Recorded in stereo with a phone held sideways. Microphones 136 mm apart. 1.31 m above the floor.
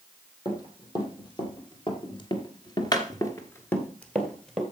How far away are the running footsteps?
About 3 m.